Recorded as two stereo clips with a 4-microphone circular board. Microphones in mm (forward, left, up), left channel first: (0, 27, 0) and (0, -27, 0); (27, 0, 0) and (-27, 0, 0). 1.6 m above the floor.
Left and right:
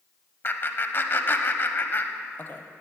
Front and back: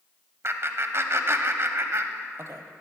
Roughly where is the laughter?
Behind left.